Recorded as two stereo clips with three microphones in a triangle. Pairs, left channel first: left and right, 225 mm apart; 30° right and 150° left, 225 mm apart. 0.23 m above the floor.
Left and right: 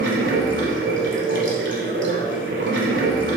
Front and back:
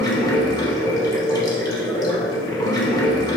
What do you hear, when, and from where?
0.0 s running water: 100° right, 1.0 m